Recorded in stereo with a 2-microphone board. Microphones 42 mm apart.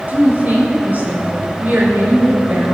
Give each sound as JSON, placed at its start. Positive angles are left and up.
{"t": 0.1, "sound": "a woman speaking", "side_deg": -40, "distance_m": 3.5}